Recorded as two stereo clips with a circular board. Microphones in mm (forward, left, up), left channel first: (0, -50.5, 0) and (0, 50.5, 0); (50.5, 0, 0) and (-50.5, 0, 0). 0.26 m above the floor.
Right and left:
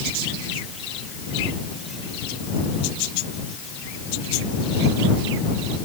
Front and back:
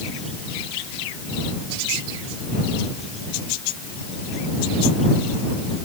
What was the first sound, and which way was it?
Only background noise.